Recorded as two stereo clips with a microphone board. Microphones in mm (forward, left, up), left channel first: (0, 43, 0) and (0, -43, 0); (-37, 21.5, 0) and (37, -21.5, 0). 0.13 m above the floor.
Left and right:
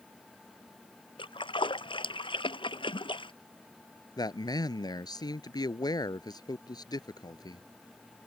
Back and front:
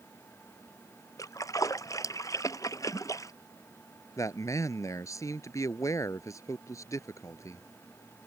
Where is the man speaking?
110° left.